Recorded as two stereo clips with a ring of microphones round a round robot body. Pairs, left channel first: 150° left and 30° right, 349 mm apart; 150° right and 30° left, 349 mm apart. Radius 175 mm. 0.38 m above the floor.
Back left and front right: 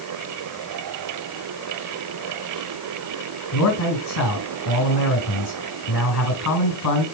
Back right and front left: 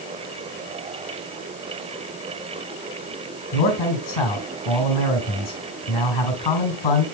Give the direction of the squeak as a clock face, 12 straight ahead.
No squeak in this recording.